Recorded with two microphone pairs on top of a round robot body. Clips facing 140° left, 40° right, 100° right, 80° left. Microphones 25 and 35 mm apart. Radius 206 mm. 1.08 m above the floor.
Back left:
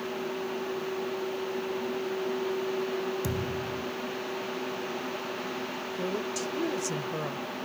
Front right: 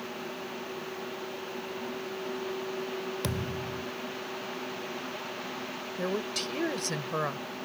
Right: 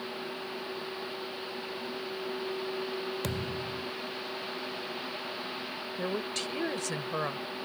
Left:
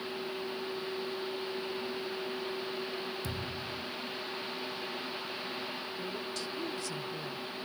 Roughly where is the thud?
Right.